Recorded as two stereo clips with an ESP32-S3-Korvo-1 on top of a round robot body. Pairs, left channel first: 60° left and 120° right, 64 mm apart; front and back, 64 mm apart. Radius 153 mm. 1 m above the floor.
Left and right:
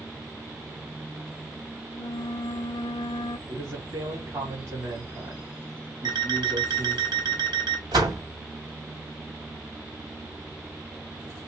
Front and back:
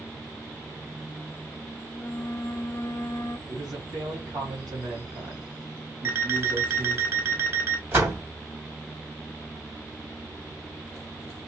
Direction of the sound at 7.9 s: 125° right.